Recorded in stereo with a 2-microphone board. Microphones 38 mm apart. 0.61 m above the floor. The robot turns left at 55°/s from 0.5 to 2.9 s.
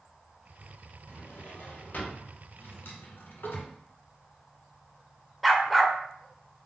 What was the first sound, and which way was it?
A drawer, 105° left.